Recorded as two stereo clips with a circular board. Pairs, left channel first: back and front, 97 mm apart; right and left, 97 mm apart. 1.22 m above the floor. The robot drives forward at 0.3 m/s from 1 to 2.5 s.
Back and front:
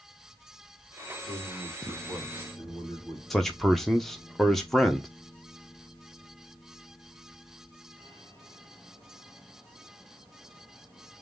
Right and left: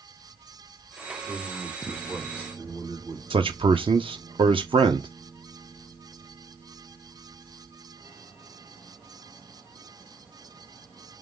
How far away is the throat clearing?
No throat clearing in this recording.